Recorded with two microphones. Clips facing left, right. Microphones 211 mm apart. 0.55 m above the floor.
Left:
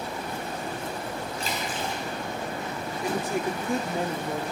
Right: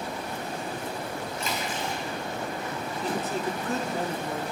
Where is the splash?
35° left (ahead or behind), 3 m.